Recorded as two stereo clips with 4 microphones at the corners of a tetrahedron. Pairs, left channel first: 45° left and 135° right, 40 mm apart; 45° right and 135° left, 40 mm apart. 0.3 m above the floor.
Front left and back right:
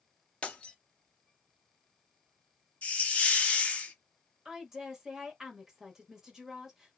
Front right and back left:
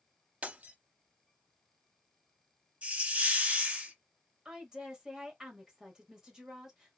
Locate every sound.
0.4 s breaking glass: 95° left, 0.8 m
2.8 s a hiss: 90° left, 0.9 m
4.5 s a woman speaking: 175° left, 1.0 m